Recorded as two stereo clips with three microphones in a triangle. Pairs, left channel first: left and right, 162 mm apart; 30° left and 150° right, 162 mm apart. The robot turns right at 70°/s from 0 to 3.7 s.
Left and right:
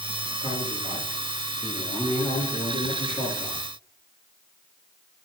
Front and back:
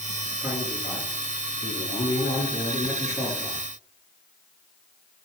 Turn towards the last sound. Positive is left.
turn(degrees=155)